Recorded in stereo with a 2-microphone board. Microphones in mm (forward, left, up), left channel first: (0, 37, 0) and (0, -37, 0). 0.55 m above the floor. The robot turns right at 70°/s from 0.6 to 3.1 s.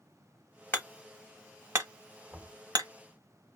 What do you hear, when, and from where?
0.7 s hammering: 30° left (ahead or behind), 0.7 m; by 2.9 s 60° right (ahead or behind), 0.7 m
2.3 s knocking: 20° right (ahead or behind), 1.3 m; by 2.6 s centre (ahead or behind), 1.3 m